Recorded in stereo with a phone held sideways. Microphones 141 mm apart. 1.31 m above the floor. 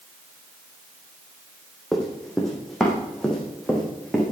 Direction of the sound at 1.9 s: Centre (ahead or behind).